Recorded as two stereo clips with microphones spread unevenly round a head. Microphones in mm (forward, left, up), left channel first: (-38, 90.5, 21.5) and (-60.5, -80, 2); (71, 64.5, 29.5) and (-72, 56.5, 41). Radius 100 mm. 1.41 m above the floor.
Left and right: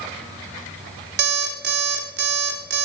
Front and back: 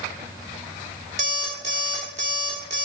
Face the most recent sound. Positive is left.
turn(degrees=-120)